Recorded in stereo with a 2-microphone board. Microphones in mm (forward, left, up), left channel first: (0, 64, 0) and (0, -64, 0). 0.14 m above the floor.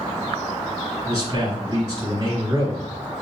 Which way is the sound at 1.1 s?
25° right (ahead or behind).